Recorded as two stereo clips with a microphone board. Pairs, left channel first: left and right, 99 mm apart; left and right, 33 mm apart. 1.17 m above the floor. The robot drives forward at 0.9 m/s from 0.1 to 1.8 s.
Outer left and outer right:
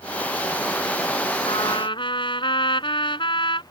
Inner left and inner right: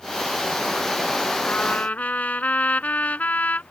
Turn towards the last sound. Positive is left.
turn(degrees=55)  # may be behind; listen again after turning